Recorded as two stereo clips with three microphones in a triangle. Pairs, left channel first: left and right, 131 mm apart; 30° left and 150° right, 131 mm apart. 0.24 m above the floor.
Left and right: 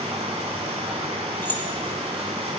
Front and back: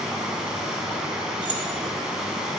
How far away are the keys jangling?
About 0.9 m.